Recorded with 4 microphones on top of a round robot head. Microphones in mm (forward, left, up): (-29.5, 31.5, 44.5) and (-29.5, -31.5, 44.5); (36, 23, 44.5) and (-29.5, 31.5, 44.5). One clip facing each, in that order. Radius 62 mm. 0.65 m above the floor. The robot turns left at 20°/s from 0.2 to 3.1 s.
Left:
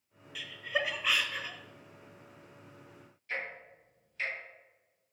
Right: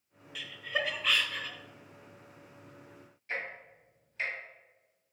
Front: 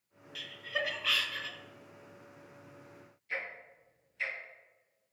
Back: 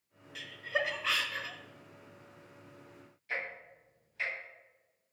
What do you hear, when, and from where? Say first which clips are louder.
0.3 s laughter: even, back 2 dB; 175° left, 0.5 m; by 1.6 s 150° left, 0.5 m
3.3 s ticking: right 1 dB, back 1 dB; 145° right, 1.8 m